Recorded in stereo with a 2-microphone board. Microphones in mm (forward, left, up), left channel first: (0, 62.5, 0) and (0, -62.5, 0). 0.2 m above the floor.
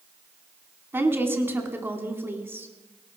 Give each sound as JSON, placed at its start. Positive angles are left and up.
{"t": 0.9, "sound": "a woman speaking", "side_deg": -20, "distance_m": 2.0}